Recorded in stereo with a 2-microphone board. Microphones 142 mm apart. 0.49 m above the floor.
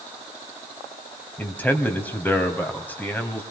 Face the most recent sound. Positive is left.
turn(degrees=10)  # may be behind; listen again after turning